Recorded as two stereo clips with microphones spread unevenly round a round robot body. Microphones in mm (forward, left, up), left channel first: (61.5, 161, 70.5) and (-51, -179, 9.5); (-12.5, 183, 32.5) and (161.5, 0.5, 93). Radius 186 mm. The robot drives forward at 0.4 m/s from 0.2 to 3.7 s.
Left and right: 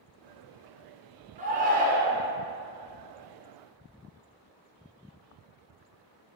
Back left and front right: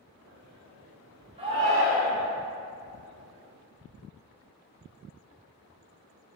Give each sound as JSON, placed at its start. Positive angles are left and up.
{"t": 1.4, "sound": "a shout", "azimuth_deg": -120, "distance_m": 0.9}